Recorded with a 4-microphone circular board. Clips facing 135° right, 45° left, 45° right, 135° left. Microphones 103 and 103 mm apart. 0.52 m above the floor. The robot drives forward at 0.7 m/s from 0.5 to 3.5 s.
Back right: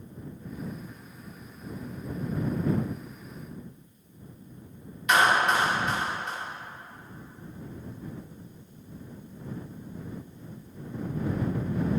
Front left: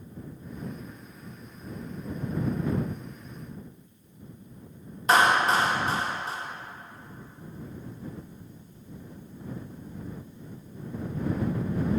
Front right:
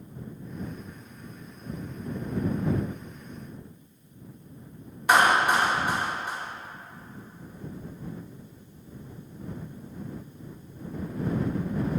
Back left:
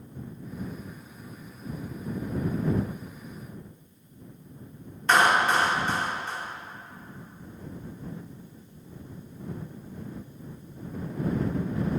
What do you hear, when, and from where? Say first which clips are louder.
5.1 s a clap: front left 1 dB, front right 1 dB; 25° left, 1.0 m